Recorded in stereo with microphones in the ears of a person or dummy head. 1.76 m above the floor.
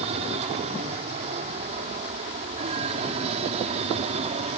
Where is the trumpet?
No trumpet in this recording.